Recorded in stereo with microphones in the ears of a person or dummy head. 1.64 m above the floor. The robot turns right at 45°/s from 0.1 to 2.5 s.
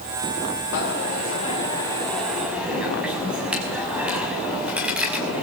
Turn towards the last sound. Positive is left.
turn(degrees=-175)